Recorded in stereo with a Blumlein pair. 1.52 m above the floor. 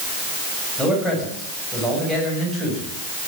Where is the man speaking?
Straight ahead, 9 m.